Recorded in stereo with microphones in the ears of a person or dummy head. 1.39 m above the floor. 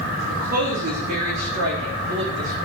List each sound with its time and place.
0.3 s a woman speaking: 55° right (ahead or behind), 4 m; by 2.7 s 65° right (ahead or behind), 3 m